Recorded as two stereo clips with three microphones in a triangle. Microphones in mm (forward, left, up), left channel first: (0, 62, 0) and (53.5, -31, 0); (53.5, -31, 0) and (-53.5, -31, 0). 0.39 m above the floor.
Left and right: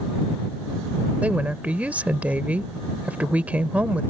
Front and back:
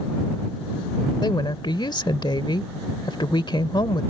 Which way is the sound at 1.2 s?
10° left.